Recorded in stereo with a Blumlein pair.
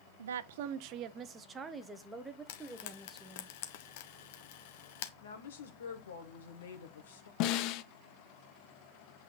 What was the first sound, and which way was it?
A woman speaking, 65° right.